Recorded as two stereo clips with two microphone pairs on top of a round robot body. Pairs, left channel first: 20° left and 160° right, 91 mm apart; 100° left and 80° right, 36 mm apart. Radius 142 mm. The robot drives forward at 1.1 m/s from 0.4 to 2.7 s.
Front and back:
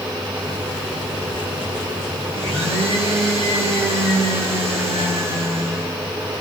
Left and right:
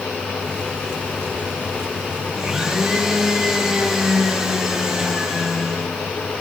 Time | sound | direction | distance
2.4 | a blender | 145° right | 4.5 m